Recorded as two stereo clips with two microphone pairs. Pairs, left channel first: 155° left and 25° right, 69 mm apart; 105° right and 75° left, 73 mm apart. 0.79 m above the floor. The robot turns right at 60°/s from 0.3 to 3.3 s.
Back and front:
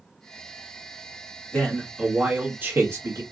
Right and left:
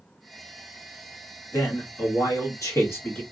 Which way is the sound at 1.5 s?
140° right.